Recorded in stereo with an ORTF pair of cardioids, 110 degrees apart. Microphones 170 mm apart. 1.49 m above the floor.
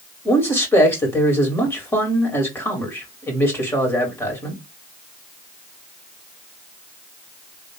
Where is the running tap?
No running tap in this recording.